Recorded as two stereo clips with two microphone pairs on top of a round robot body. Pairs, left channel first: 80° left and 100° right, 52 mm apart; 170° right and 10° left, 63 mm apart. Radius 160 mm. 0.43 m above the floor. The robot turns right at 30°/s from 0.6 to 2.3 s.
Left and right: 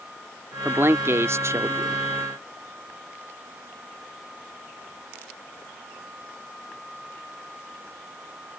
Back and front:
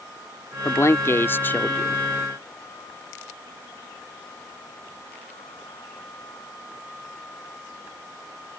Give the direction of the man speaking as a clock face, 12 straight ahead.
5 o'clock.